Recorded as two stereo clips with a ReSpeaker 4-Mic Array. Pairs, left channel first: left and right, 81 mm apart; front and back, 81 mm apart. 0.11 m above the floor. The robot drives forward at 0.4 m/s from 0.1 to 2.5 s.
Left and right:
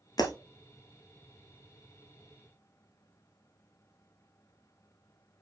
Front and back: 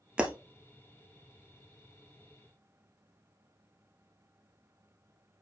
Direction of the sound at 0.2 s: 105° left.